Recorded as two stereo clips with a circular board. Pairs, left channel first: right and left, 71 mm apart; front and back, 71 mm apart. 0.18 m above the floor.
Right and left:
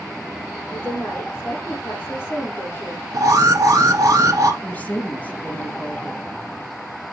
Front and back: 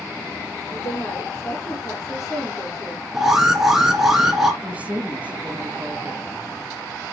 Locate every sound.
0.7 s a woman speaking: 30° right, 5.5 m
3.1 s an alarm: 95° left, 1.9 m
4.6 s a woman speaking: 135° right, 1.2 m